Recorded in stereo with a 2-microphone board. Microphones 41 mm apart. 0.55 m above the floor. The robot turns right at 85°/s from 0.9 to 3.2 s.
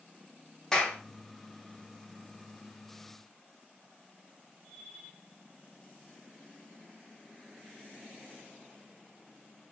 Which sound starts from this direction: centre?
A clap, at 0.7 s.